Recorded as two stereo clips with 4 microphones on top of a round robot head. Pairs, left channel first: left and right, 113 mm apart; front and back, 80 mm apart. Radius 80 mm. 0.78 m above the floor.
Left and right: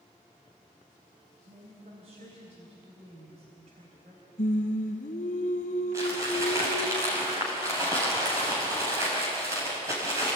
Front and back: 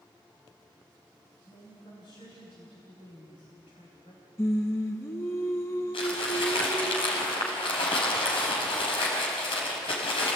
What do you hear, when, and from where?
1.5 s a woman speaking: 45° right, 4.5 m
4.4 s singing: 55° left, 3 m
5.9 s crumpling: 20° right, 5 m